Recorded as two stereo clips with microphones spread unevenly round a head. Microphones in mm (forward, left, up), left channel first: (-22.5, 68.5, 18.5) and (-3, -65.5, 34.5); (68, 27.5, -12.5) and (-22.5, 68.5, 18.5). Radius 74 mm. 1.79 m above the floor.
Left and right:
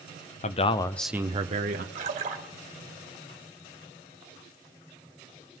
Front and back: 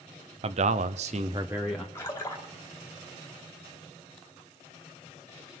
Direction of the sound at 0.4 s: 140° left.